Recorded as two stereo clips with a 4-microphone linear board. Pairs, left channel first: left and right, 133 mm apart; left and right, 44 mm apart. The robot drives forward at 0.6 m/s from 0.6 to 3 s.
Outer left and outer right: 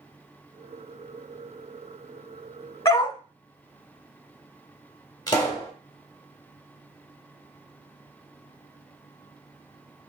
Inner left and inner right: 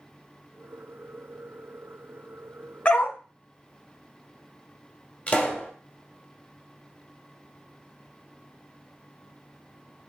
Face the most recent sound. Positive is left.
turn(degrees=30)  # may be behind; listen again after turning